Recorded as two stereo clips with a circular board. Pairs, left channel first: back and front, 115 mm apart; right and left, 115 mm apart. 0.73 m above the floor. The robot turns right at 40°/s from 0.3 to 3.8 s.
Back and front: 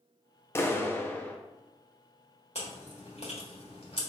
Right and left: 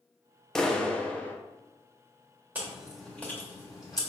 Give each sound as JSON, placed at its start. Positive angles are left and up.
{"t": 0.6, "sound": "a clap", "azimuth_deg": -165, "distance_m": 0.6}
{"t": 2.5, "sound": "chewing", "azimuth_deg": 165, "distance_m": 1.5}